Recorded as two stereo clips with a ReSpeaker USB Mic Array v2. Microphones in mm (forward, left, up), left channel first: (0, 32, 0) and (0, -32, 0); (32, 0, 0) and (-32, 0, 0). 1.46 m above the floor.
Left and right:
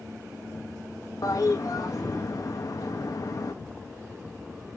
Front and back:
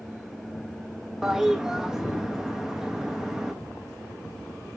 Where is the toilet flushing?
100° left, 1.0 m.